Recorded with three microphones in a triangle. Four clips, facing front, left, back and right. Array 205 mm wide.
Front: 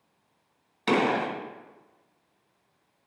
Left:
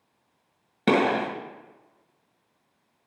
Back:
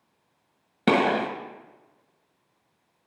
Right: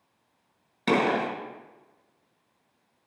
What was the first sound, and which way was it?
A gunshot, 150° left.